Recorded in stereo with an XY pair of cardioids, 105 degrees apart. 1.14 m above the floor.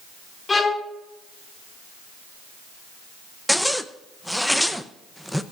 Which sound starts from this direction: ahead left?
A violin, at 0.5 s.